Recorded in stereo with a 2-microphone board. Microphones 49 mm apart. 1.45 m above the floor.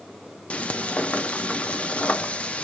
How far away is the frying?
About 0.6 m.